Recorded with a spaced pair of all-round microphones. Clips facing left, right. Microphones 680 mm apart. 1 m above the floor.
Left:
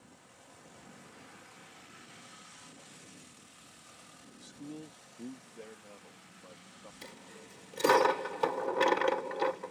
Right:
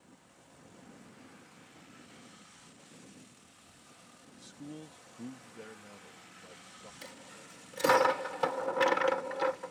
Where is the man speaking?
10° right (ahead or behind); by 6.9 s 50° right (ahead or behind).